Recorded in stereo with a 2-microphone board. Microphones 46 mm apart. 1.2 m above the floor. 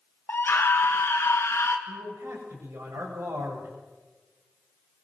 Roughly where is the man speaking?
Right.